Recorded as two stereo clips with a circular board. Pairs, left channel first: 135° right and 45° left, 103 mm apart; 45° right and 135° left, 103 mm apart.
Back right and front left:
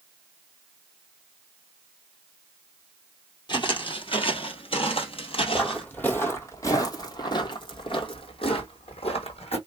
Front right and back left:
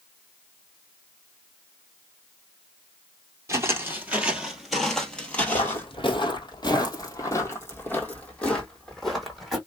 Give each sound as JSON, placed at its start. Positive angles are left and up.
{"t": 3.5, "sound": "footsteps", "azimuth_deg": -165, "distance_m": 1.4}
{"t": 5.5, "sound": "footsteps", "azimuth_deg": -55, "distance_m": 1.5}